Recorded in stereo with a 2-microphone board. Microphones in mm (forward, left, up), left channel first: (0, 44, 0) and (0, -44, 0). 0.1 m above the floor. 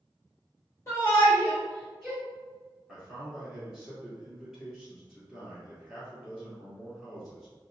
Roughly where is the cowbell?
I don't hear a cowbell.